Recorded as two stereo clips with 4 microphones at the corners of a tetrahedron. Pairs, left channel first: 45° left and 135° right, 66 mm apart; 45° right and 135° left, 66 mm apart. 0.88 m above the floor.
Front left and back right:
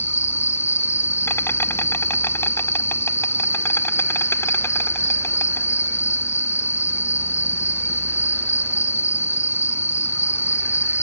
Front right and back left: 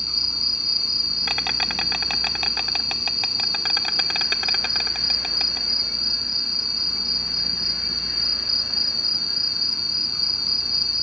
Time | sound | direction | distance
0.0 | an insect | 50° left | ?